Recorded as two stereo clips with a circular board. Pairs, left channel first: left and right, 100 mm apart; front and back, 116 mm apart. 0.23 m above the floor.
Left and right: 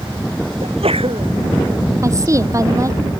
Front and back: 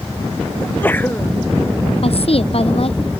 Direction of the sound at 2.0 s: 35° right.